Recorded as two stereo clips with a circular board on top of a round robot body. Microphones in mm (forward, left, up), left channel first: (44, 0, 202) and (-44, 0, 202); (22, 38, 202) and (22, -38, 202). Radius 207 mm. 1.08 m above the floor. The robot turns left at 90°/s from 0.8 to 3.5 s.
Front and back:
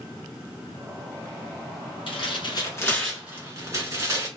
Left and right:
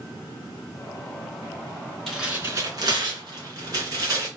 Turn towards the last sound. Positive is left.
turn(degrees=-130)